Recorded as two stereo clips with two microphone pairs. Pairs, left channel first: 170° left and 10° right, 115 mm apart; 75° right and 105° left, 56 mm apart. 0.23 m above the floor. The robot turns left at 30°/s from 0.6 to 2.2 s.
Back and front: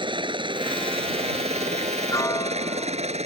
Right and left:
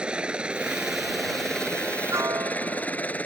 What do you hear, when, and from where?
0.0 s a helicopter: 35° left; by 3.3 s 15° right
2.1 s a piano: 115° left; by 3.2 s 110° left